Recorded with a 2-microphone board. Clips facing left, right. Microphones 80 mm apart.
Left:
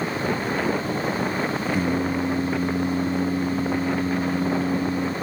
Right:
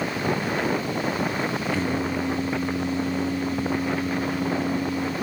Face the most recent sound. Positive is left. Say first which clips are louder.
# left 2 dB
turn(degrees=15)  # may be behind; listen again after turning